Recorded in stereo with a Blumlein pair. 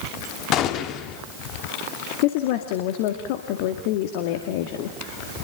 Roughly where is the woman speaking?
Ahead left.